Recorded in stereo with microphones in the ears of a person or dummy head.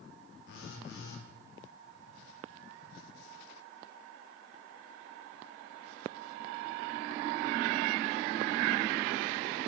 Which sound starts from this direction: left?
A phone buzzing, at 0.5 s.